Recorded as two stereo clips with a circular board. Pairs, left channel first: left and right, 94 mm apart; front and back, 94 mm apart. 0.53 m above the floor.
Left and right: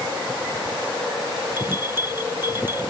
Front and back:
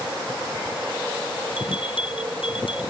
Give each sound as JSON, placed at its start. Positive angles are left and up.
{"t": 1.6, "sound": "a bell", "azimuth_deg": -25}